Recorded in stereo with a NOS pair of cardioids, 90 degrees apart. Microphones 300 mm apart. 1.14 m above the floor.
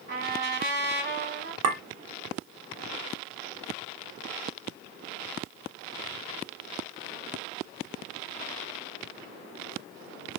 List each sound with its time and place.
0.1 s a trumpet: 35° right, 1.8 m
1.6 s a clink: 55° right, 1.1 m